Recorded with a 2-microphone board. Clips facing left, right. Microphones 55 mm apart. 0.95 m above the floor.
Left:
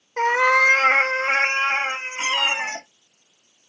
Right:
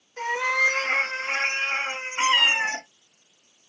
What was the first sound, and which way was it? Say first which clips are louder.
A cat meowing: left 7 dB; 55° left (ahead or behind).